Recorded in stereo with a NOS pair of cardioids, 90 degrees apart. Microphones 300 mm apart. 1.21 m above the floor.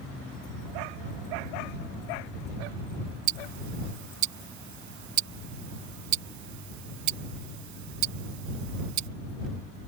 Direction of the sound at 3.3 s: 70° right.